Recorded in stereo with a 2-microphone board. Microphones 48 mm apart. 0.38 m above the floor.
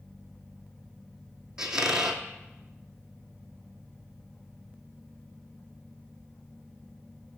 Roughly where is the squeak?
Centre.